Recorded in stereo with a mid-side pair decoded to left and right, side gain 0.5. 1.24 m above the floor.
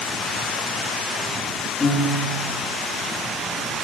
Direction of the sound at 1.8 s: 15° left.